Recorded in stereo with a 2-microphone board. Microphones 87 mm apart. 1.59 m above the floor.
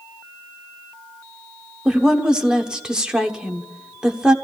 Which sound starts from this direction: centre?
A woman speaking, at 1.9 s.